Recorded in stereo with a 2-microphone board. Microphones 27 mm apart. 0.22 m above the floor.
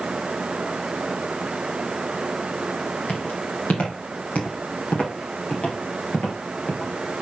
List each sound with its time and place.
3.1 s footsteps: 70° left (ahead or behind), 5.5 m; by 7.2 s 50° left (ahead or behind), 4 m